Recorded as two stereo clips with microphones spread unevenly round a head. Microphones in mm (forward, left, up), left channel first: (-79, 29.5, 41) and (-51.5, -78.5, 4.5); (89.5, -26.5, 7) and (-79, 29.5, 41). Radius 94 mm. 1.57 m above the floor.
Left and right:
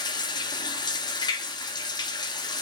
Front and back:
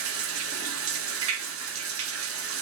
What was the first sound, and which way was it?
Running water, 155° left.